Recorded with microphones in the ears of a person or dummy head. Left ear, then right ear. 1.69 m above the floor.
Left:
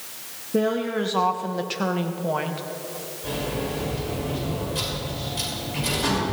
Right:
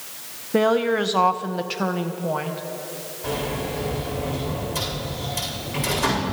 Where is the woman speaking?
30° right (ahead or behind), 0.7 m; by 2.6 s 5° left (ahead or behind), 1.2 m.